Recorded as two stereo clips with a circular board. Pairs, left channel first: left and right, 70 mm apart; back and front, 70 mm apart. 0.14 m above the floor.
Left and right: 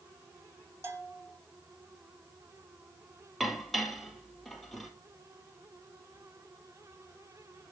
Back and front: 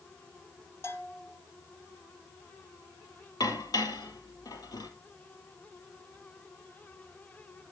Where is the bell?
135° right, 3 m.